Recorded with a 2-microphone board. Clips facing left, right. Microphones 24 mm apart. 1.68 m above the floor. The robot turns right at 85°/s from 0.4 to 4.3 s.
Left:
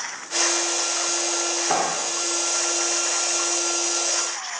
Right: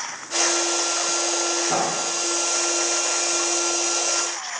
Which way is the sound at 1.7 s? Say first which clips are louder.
Even; 70° left.